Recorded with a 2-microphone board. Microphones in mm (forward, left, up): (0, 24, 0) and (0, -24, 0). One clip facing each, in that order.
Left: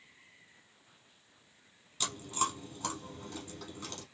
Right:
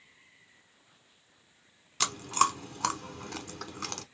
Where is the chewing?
70° right (ahead or behind), 0.8 m.